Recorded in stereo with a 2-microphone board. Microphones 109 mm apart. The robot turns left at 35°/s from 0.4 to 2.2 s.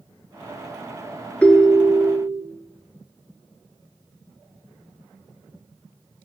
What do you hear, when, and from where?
1.4 s a ringtone: 10° left (ahead or behind), 0.7 m; by 2.4 s 10° right (ahead or behind), 0.7 m